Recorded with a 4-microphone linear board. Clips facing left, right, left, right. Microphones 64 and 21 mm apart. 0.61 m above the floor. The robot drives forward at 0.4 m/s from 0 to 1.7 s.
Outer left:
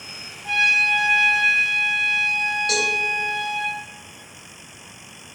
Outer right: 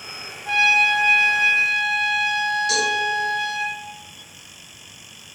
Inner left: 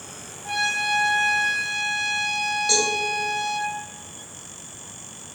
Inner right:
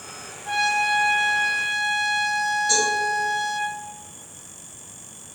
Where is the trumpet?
20° left (ahead or behind), 1.3 m; by 3.7 s 15° left (ahead or behind), 1.8 m.